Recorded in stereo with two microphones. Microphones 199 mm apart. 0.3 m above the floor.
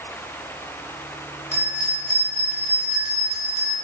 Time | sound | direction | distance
1.5 | a bell | 35° left (ahead or behind) | 0.5 m